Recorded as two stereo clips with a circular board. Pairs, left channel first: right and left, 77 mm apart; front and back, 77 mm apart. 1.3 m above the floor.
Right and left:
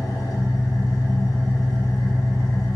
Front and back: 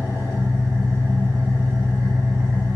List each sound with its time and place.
0.0 s an engine running: 125° right, 0.8 m